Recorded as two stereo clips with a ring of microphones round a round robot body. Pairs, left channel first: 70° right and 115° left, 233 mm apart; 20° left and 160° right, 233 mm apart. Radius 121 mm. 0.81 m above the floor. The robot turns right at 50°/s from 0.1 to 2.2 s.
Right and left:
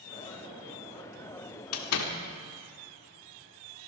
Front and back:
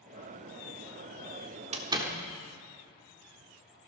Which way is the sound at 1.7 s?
95° right.